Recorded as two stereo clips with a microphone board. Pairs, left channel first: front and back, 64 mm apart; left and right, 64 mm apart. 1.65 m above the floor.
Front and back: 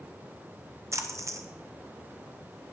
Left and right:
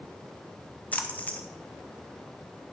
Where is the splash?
150° left, 0.6 m.